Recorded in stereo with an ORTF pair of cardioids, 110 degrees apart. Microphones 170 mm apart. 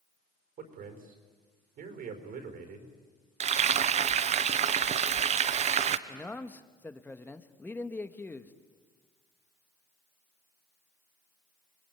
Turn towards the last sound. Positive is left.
turn(degrees=10)